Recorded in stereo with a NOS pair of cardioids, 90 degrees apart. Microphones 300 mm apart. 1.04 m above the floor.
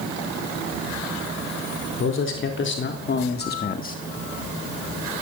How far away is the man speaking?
About 4 m.